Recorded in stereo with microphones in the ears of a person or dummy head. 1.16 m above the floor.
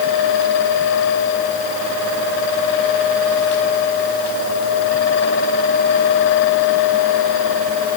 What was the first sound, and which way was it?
Only background noise.